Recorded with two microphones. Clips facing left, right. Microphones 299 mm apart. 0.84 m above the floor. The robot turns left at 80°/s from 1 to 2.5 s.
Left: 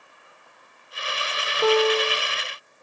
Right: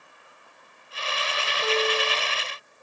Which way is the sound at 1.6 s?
90° left.